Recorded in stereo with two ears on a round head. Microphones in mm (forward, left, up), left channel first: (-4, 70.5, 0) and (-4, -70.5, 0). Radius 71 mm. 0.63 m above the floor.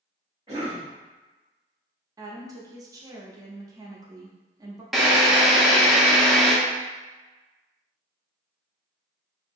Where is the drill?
Centre (ahead or behind), 0.5 m.